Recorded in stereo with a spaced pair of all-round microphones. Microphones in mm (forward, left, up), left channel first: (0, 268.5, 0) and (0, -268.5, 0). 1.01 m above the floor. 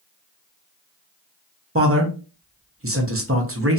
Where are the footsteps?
No footsteps in this recording.